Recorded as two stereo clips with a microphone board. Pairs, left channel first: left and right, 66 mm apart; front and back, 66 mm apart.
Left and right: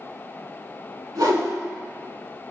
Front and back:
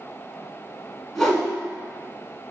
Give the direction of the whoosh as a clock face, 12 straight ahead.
3 o'clock.